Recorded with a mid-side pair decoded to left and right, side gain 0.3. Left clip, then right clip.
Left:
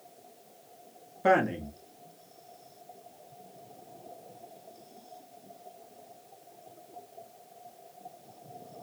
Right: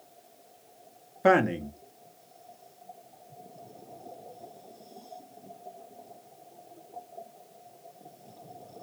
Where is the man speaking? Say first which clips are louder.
Right 2 dB; 55° right, 0.9 m.